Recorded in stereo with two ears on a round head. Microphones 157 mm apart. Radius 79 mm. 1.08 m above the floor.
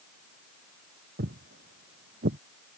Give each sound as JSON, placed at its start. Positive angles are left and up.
{"t": 1.2, "sound": "footsteps", "side_deg": -60}